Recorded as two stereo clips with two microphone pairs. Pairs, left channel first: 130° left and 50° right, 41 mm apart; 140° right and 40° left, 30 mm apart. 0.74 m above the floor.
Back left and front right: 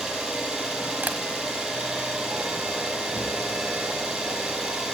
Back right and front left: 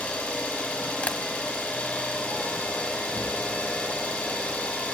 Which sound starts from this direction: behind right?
An engine running, at 0.0 s.